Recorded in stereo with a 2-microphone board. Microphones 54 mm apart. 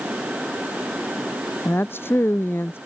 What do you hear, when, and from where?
1.6 s a woman speaking: 45° left (ahead or behind)